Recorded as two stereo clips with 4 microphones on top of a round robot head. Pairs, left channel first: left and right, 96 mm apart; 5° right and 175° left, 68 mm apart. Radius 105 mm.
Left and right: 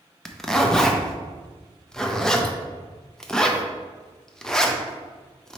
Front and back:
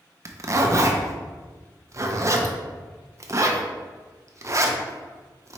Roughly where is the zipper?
Behind.